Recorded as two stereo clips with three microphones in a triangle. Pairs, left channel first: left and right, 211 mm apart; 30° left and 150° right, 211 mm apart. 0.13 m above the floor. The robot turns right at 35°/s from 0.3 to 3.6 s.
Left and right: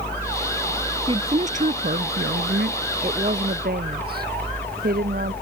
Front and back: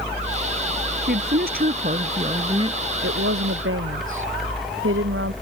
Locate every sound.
1.1 s a woman speaking: 145° right; by 2.8 s 85° right
3.0 s a woman speaking: 155° right; by 5.3 s 135° right